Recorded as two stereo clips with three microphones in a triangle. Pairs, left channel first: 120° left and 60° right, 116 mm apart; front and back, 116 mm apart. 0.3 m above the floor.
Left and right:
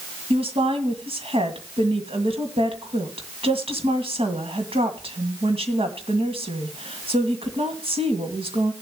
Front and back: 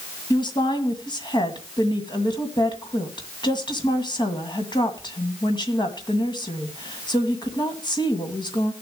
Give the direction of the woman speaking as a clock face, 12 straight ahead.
1 o'clock.